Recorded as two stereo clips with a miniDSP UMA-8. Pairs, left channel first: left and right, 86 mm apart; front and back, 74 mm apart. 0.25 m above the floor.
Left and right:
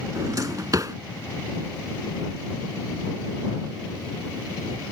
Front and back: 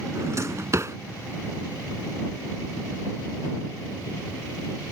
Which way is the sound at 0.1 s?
135° right.